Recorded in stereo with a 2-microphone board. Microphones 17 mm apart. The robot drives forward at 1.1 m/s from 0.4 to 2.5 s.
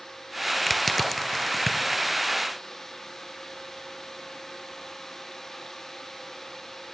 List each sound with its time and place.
0.7 s crushing: 10° left (ahead or behind), 0.7 m; by 2.2 s 5° left (ahead or behind), 2 m